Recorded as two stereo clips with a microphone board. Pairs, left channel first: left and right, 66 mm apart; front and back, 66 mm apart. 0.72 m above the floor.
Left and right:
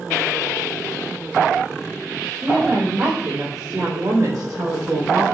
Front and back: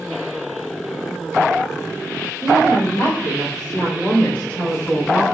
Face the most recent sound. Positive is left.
turn(degrees=-85)